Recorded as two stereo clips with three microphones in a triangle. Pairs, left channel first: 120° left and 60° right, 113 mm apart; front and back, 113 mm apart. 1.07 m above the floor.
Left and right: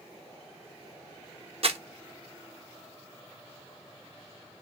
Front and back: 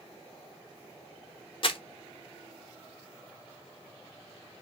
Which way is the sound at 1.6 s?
35° right.